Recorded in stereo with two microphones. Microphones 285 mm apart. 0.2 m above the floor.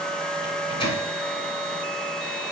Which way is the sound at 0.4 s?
20° left (ahead or behind).